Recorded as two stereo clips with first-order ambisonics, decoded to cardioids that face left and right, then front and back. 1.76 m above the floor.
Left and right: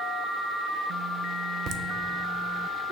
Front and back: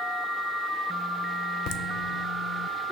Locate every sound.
1.7 s laughter: 40° right, 0.5 m